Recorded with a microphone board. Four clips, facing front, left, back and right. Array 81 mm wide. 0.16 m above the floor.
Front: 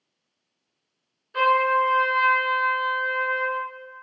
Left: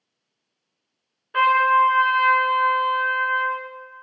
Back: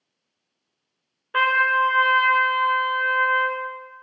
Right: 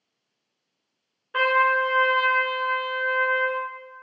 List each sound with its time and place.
1.3 s a trumpet: 175° right, 0.7 m